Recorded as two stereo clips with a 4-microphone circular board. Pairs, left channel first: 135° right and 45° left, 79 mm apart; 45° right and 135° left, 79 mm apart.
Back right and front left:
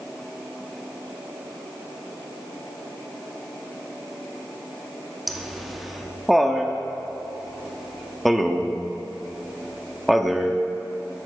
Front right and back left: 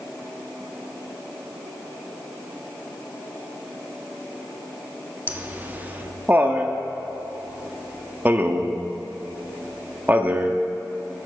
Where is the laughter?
130° left, 0.7 m.